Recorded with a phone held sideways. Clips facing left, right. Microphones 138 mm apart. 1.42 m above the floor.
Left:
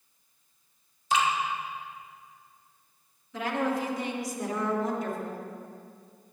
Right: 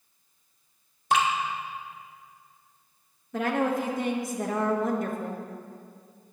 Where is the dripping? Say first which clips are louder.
Right 2 dB; 60° right (ahead or behind), 1.5 m.